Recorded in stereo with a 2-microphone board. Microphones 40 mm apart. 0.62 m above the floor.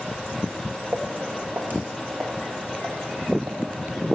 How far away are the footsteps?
About 1.2 m.